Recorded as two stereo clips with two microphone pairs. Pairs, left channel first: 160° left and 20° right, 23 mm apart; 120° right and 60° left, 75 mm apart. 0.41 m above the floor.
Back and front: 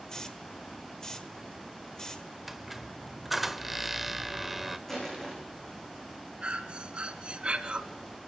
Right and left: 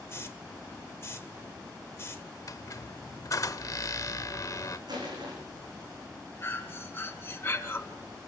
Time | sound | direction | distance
0.1 | a hiss | 150° right | 1.8 m
2.5 | a squeak | 100° right | 1.1 m
4.9 | crushing | 85° left | 7.5 m
6.4 | breathing | 55° right | 2 m